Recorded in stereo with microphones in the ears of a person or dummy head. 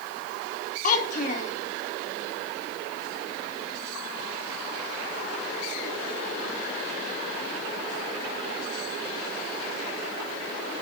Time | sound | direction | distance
0.8 | a child speaking | 45° left (ahead or behind) | 2 m